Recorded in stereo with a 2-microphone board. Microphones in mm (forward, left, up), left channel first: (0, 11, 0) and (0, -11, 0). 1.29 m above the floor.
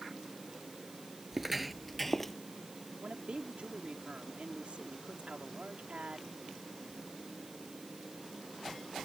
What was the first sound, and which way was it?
Footsteps, 15° right (ahead or behind).